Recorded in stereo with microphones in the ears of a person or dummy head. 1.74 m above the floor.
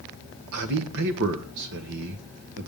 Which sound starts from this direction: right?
A man speaking, at 0.5 s.